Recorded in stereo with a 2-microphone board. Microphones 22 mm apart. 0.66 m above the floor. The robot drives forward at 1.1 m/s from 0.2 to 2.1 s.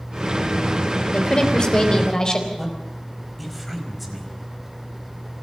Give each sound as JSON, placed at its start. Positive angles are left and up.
{"t": 1.1, "sound": "a woman speaking", "side_deg": 35, "distance_m": 3.0}
{"t": 2.6, "sound": "a man speaking", "side_deg": 0, "distance_m": 4.5}